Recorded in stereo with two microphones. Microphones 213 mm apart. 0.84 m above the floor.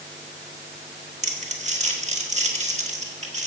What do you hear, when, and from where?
1.2 s crumpling: 35° right (ahead or behind), 1.4 m